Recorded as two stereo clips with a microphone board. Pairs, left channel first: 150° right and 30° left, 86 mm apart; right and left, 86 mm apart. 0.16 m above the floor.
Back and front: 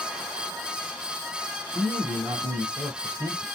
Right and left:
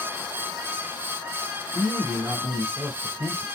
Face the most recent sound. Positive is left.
turn(degrees=60)